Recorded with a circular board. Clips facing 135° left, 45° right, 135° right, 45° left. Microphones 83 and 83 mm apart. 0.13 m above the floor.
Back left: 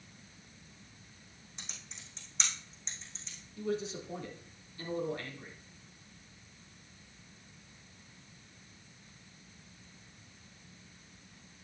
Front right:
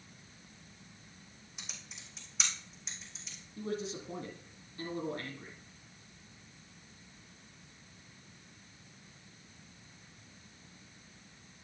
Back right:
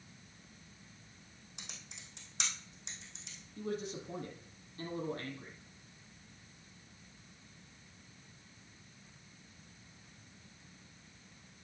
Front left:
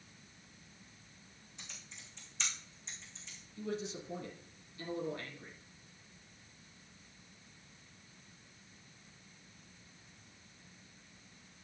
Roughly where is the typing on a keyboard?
Behind right.